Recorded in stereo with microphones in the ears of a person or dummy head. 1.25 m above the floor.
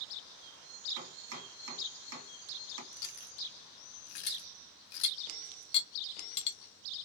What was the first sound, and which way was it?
Chopping, 80° right.